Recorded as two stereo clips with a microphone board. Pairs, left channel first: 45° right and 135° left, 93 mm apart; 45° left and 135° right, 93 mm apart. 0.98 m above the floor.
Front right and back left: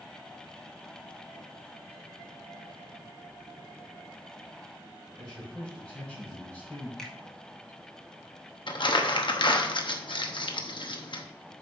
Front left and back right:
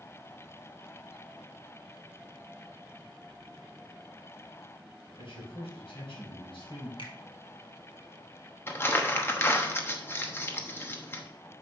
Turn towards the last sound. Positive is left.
turn(degrees=-20)